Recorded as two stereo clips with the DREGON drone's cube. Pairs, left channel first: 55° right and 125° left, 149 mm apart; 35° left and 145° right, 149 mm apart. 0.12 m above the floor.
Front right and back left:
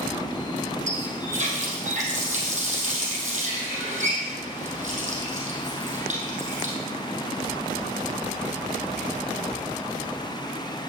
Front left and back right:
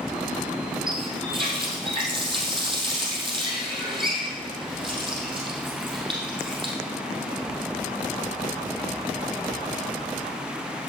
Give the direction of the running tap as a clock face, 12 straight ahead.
7 o'clock.